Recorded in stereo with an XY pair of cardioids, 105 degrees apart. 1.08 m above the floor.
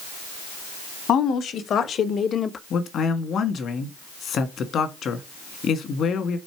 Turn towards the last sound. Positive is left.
turn(degrees=60)